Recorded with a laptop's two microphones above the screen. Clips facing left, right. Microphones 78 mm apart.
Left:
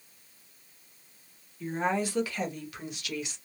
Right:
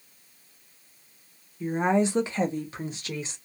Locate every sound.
1.6 s a woman speaking: 15° right (ahead or behind), 0.8 m; by 3.4 s 35° right (ahead or behind), 1.2 m